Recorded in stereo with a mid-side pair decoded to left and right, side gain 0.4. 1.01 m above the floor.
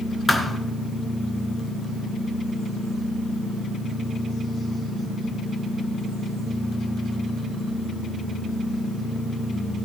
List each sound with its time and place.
0.3 s a thud: 20° left, 2.5 m